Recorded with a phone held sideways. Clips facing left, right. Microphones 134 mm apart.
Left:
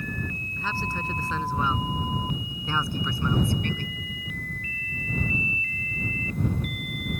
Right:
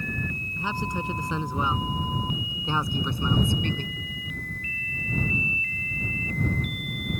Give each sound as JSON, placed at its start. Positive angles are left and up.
{"t": 0.6, "sound": "a man speaking", "side_deg": -15}